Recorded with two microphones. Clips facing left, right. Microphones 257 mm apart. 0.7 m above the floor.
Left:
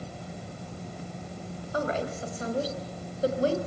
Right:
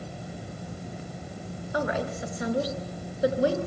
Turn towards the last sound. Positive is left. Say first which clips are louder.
# right 1 dB
turn(degrees=-20)  # may be behind; listen again after turning